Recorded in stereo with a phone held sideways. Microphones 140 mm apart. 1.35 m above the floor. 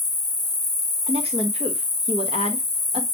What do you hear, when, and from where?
0.0 s an insect: 40° left (ahead or behind), 0.7 m
1.1 s a woman speaking: 45° right (ahead or behind), 0.8 m